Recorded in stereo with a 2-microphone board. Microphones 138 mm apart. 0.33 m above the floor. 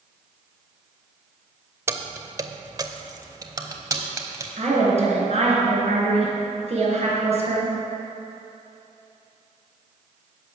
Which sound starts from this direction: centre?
Keys jangling, at 1.9 s.